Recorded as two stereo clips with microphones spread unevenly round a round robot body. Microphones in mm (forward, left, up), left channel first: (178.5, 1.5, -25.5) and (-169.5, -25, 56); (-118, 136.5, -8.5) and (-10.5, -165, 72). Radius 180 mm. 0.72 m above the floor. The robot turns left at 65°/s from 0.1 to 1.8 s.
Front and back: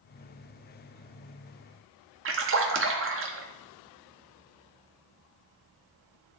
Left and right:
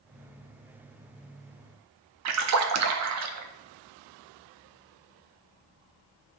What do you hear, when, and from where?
2.2 s a splash: 115° right, 0.9 m